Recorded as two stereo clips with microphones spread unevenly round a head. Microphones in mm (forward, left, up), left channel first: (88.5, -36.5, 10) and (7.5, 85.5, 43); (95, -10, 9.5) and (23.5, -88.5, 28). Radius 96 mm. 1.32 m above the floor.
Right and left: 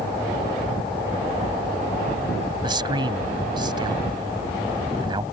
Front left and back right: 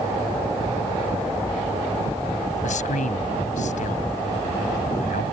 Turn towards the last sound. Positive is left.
turn(degrees=65)